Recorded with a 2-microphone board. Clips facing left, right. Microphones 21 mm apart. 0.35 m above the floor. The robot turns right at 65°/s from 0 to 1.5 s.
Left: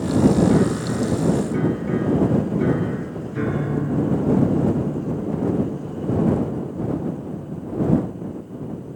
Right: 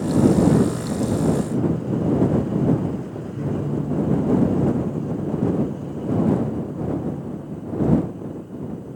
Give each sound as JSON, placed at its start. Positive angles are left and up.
{"t": 0.5, "sound": "a piano", "azimuth_deg": 15}